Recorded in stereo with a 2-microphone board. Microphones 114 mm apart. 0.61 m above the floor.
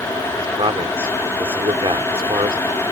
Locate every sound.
0.4 s a man speaking: 50° right (ahead or behind)